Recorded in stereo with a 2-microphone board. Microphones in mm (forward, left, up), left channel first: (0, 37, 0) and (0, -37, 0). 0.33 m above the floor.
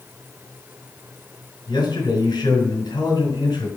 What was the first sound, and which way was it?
A man speaking, 70° left (ahead or behind).